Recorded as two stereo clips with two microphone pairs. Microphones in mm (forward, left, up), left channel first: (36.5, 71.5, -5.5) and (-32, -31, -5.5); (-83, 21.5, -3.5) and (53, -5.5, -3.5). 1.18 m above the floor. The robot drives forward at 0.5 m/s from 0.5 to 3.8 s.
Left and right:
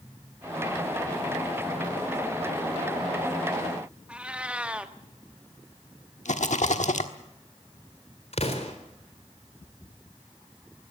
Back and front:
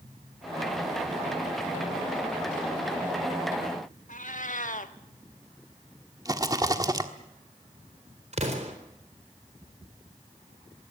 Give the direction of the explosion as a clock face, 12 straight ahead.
11 o'clock.